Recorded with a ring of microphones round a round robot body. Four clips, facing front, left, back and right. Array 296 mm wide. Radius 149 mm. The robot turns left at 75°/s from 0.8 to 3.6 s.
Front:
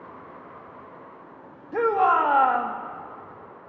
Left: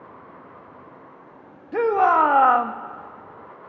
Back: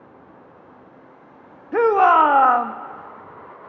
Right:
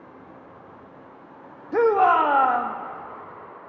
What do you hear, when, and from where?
1.7 s a shout: 160° right, 0.6 m; by 2.7 s 125° left, 0.6 m